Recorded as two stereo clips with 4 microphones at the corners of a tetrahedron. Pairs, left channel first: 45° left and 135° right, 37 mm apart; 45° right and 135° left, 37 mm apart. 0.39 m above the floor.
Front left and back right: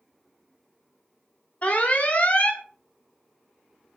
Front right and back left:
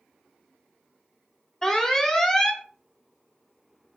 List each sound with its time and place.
1.6 s an alarm: 30° left, 0.9 m